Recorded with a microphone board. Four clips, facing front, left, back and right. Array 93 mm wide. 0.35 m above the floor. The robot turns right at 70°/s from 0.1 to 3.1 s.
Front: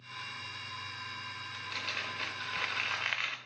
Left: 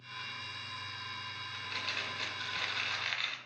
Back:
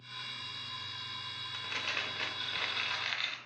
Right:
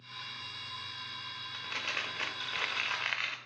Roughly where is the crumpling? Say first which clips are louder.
Right 3 dB, back 2 dB; behind right.